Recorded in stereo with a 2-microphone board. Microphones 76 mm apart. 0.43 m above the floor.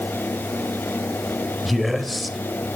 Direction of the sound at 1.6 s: Centre (ahead or behind).